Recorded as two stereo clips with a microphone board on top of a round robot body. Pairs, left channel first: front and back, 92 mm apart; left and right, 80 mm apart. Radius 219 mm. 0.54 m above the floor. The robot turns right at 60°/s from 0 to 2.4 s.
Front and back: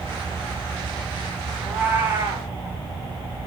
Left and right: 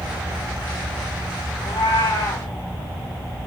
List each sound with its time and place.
1.6 s a cat meowing: 90° left, 5 m; by 2.5 s 135° left, 5 m